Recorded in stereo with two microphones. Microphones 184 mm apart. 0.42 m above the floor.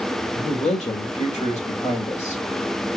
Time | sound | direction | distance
0.3 | a man speaking | 35° left (ahead or behind) | 1.6 m